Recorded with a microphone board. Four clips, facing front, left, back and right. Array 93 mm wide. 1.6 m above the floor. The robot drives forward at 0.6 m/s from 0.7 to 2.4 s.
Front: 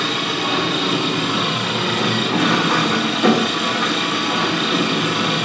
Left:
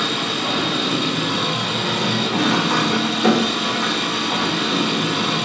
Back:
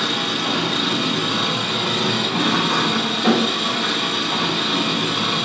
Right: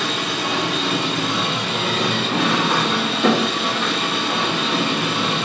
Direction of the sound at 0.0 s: 25° right.